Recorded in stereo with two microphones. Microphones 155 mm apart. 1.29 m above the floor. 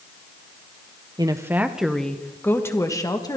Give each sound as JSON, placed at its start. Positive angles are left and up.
{"t": 1.2, "sound": "a woman speaking", "side_deg": -25, "distance_m": 1.0}